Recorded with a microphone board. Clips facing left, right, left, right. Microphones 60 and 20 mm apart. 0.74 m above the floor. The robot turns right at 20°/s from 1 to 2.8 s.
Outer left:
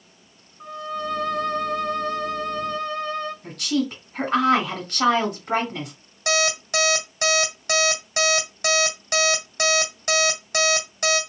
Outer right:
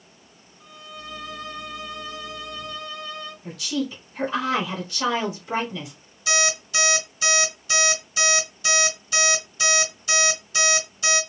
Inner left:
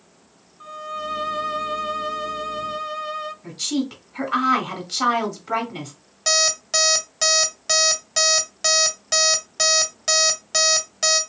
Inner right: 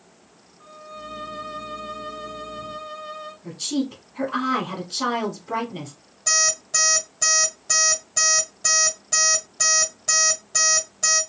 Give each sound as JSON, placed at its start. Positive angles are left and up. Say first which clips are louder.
{"t": 0.6, "sound": "a violin", "louder": "outer left 12 dB, inner left 9 dB", "azimuth_deg": 90, "distance_m": 0.5}
{"t": 3.4, "sound": "a woman speaking", "louder": "outer left 1 dB, even", "side_deg": 55, "distance_m": 1.9}
{"t": 6.3, "sound": "an alarm clock", "louder": "outer left 2 dB, inner left 2 dB", "side_deg": 75, "distance_m": 1.6}